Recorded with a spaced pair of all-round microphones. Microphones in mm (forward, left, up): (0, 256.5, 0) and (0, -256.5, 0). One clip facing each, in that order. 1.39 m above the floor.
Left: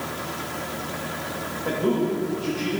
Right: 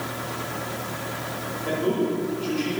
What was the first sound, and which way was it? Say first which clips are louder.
A man speaking: left 1 dB; 70° left (ahead or behind).